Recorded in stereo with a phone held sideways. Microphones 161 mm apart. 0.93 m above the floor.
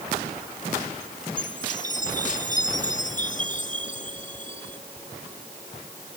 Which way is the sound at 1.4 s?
55° left (ahead or behind).